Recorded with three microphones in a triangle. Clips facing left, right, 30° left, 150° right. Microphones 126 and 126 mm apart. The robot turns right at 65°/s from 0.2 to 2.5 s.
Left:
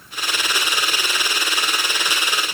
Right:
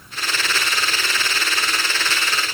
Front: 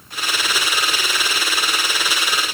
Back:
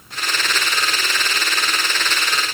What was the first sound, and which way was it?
Only background noise.